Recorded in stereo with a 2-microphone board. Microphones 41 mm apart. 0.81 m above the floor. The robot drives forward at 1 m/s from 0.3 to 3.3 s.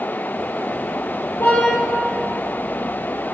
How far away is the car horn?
About 10 m.